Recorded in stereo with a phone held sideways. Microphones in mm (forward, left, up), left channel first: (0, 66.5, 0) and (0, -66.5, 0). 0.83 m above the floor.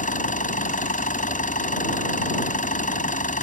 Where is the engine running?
70° left (ahead or behind).